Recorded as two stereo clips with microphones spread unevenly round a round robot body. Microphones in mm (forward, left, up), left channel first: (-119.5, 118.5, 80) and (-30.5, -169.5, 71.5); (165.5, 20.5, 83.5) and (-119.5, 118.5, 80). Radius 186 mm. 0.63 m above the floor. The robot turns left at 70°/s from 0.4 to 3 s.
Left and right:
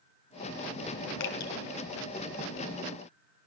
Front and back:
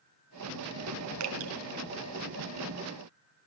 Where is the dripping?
130° left, 2 m; by 1.5 s 110° left, 2 m.